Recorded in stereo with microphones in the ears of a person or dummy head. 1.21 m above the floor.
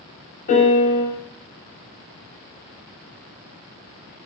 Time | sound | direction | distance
0.5 | a piano | 40° left (ahead or behind) | 0.9 m